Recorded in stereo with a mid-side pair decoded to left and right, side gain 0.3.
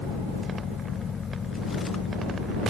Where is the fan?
70° left.